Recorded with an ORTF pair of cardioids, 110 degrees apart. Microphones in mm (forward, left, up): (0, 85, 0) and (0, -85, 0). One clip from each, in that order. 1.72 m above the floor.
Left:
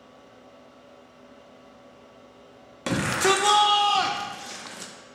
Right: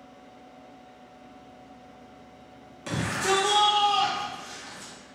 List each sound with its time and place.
0.0 s a fan: 10° left, 0.8 m
2.9 s a shout: 45° left, 0.6 m